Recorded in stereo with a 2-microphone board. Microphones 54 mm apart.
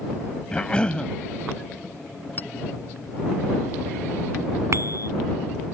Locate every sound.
0.5 s a cough: 20° left (ahead or behind)
2.4 s a clink: 35° left (ahead or behind)
4.7 s a bicycle bell: 55° right (ahead or behind)